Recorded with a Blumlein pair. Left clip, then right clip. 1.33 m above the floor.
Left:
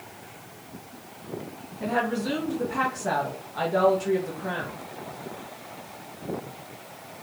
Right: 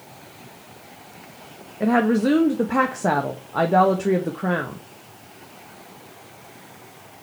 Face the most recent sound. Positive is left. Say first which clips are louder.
# right 7 dB
turn(degrees=-50)